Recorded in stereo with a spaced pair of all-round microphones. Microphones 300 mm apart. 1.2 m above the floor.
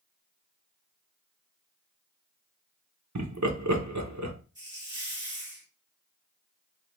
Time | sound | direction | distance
3.1 | laughter | 65° right (ahead or behind) | 0.9 m
4.5 | a hiss | 35° right (ahead or behind) | 2.0 m